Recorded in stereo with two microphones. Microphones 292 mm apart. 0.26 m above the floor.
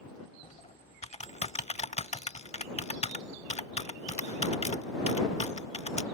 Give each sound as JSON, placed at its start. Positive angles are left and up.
{"t": 0.4, "sound": "typing on a keyboard", "side_deg": 25}